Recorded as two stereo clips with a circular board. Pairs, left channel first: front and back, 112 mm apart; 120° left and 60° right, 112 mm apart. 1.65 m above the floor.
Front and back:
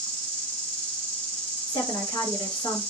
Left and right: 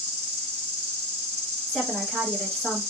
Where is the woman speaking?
40° left, 1.3 m.